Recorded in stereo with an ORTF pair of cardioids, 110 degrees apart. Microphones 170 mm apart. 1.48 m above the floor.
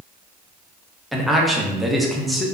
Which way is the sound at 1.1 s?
Straight ahead.